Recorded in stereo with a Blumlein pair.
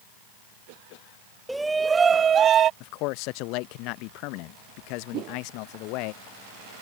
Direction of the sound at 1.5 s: Straight ahead.